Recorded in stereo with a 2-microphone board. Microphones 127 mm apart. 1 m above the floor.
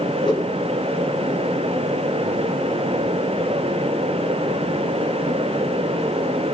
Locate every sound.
0.2 s a whoosh: 40° left (ahead or behind), 1.1 m